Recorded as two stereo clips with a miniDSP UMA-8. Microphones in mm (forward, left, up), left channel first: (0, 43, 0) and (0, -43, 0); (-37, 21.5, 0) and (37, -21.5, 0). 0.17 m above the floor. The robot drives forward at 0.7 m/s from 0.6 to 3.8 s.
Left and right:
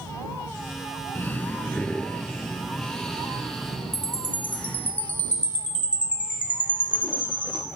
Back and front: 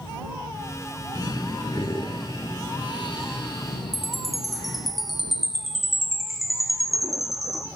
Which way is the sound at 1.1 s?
145° left.